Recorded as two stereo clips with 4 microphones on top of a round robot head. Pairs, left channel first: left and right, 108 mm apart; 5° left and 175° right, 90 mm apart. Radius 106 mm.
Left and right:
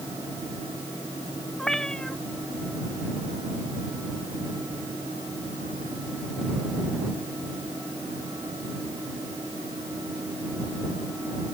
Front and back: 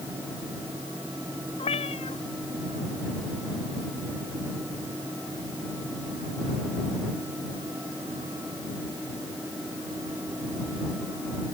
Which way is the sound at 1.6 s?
5° left.